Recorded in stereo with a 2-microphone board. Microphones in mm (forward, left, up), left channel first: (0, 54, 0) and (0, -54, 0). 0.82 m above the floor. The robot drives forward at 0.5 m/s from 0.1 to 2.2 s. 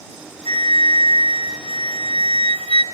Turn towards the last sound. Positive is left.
turn(degrees=-75)  # may be behind; listen again after turning